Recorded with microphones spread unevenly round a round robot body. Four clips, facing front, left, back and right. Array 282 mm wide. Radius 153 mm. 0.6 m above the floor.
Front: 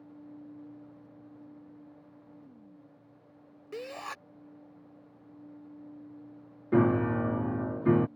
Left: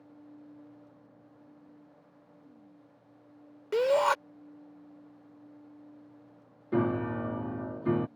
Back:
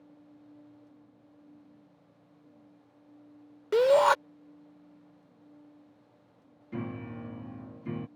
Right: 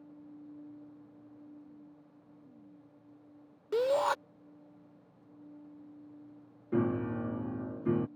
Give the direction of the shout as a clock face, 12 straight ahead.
7 o'clock.